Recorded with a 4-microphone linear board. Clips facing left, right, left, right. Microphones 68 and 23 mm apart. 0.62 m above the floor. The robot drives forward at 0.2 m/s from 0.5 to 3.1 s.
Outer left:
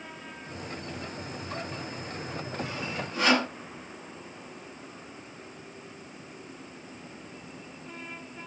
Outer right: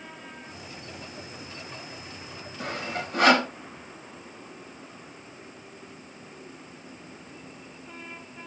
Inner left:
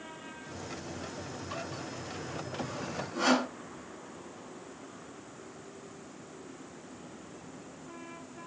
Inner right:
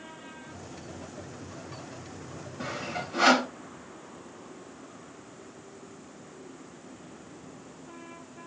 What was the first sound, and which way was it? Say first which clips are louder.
Sawing: outer right 5 dB, inner right 6 dB; 65° right (ahead or behind).